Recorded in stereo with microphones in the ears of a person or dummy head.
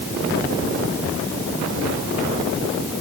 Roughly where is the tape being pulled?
I don't hear tape being pulled.